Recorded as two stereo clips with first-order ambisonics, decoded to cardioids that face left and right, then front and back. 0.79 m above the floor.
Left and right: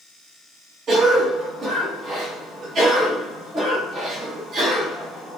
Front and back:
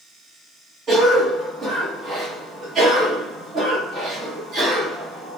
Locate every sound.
0.9 s a cough: 130° right, 0.9 m